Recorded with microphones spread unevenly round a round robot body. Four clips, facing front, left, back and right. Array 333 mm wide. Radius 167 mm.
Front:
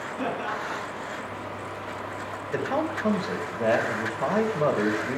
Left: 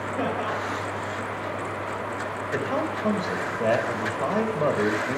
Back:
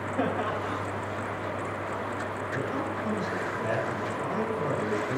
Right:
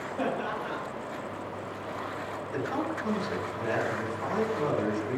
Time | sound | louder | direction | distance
0.2 | laughter | left 3 dB, back 1 dB | 130° left | 3.5 m
2.5 | a man speaking | left 4 dB, front 7 dB | 45° left | 3.5 m